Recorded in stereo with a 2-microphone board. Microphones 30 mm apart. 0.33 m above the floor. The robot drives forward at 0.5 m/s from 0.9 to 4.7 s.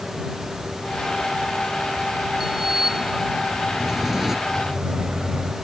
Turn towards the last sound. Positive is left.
turn(degrees=-40)  # may be behind; listen again after turning